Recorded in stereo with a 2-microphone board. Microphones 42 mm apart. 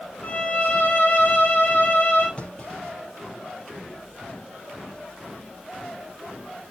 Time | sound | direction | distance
0.2 | a violin | 55° left (ahead or behind) | 4.5 m
2.4 | a clunk | 25° left (ahead or behind) | 4.5 m